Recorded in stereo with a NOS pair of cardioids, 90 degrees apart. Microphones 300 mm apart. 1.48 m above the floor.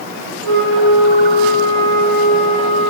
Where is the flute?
45° right, 1.7 m.